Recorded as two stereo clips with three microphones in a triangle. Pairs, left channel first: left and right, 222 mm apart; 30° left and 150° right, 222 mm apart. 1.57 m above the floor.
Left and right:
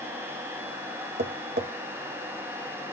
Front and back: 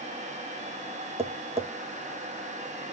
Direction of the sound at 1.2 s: 95° right.